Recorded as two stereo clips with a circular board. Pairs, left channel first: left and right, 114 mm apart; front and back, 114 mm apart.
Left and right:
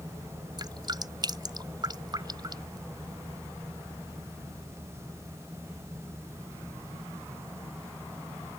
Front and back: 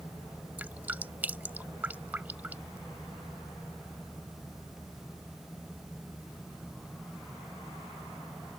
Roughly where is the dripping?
Right.